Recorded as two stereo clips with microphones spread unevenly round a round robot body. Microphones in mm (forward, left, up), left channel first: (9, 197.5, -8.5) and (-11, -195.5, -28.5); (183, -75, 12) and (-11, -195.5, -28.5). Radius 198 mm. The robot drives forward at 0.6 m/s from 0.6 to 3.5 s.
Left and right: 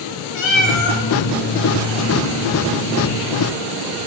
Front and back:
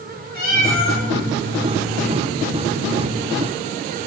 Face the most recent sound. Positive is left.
turn(degrees=135)